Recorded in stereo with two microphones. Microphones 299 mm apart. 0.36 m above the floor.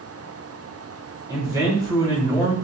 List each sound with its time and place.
1.3 s a man speaking: 10° right (ahead or behind), 1.1 m